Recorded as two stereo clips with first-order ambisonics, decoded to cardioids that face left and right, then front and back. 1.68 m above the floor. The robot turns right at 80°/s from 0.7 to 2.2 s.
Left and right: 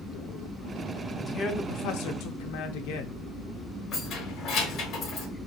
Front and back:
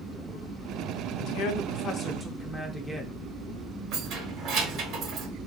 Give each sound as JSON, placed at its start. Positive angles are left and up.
{"t": 1.2, "sound": "a man speaking", "azimuth_deg": 5, "distance_m": 0.5}
{"t": 3.9, "sound": "keys jangling", "azimuth_deg": 145, "distance_m": 1.2}